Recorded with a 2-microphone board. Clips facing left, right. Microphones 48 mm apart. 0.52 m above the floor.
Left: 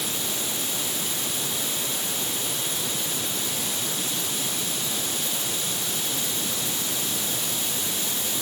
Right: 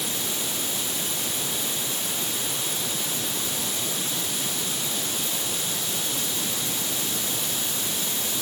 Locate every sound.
Only background noise.